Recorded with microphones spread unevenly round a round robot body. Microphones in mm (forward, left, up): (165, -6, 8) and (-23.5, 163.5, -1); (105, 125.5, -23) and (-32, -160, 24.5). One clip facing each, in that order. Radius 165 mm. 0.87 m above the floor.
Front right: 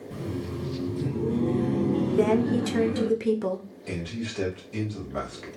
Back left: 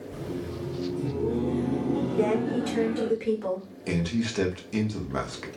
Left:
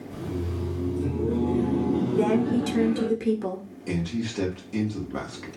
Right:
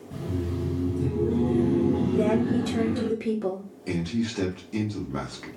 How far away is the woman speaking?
About 0.9 m.